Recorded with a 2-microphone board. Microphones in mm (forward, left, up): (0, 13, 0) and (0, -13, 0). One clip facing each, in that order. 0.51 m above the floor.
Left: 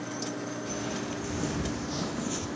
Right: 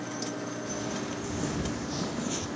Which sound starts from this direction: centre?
Footsteps, at 0.6 s.